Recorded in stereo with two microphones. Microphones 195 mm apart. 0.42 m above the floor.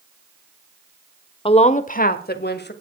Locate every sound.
1.4 s a woman speaking: 25° left (ahead or behind), 0.9 m; by 2.7 s 60° left (ahead or behind), 1.7 m